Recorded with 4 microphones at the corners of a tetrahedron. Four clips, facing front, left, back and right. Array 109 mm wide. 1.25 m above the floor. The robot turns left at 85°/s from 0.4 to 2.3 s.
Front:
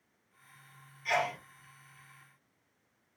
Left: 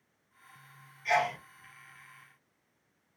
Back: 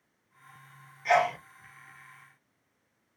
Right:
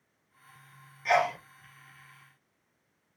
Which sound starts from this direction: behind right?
A sneeze, at 1.1 s.